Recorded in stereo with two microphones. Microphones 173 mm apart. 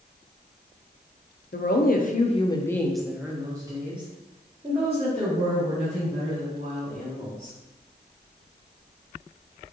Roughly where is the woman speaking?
Left.